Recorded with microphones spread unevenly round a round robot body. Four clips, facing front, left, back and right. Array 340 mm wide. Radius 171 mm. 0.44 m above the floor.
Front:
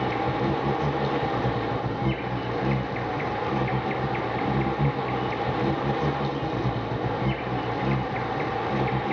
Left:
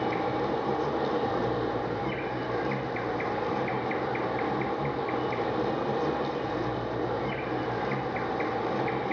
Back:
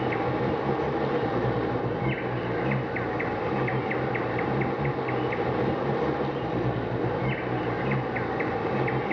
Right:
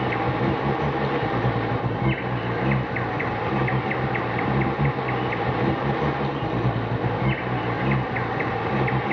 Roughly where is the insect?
Right.